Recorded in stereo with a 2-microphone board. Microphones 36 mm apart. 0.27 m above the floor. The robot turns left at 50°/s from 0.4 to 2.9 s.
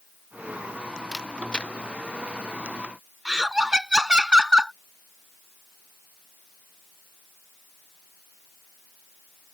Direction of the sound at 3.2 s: 20° right (ahead or behind).